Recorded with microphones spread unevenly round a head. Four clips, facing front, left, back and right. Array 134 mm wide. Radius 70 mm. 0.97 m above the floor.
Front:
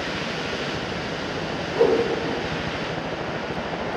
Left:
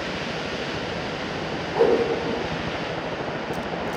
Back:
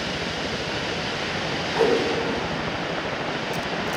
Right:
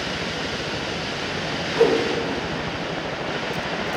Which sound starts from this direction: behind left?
A whoosh, at 1.7 s.